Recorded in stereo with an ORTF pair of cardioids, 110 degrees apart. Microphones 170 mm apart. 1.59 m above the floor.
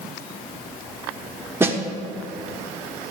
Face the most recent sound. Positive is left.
turn(degrees=-15)